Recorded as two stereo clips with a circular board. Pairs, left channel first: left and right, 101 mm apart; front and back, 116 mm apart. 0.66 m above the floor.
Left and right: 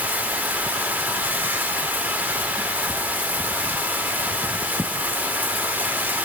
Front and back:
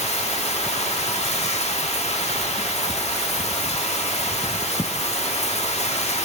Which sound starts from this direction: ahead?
Running water, at 0.0 s.